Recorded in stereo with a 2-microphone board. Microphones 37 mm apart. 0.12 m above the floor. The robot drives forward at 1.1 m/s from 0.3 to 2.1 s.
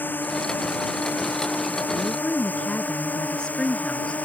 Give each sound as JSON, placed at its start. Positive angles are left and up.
{"t": 0.0, "sound": "a drone", "side_deg": 55}
{"t": 1.9, "sound": "a woman speaking", "side_deg": 25}